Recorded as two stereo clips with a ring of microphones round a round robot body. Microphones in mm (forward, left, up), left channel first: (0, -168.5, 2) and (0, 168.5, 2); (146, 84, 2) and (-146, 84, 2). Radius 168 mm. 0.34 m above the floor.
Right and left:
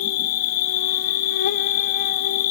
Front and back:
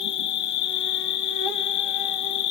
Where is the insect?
25° right, 1.4 m.